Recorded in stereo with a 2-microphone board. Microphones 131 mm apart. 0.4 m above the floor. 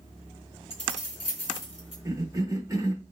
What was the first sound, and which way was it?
Keys jangling, 45° left (ahead or behind).